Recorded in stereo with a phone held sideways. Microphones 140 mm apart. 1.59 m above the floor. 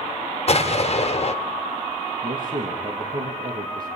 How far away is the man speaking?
About 2.5 m.